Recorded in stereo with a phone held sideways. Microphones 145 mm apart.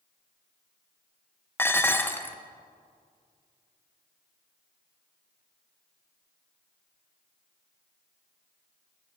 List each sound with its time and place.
1.6 s dishes clattering: 15° left (ahead or behind), 0.6 m